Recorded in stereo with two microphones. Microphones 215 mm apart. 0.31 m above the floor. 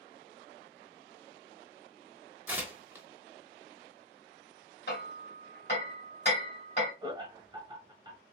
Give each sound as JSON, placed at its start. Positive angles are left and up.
{"t": 2.5, "sound": "tearing paper", "side_deg": -10, "distance_m": 0.7}
{"t": 4.9, "sound": "hammering", "side_deg": 50, "distance_m": 2.0}
{"t": 7.0, "sound": "laughter", "side_deg": -20, "distance_m": 1.2}